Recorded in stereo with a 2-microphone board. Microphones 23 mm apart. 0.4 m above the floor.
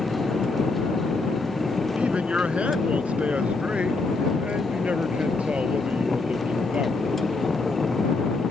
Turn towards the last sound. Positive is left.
turn(degrees=-80)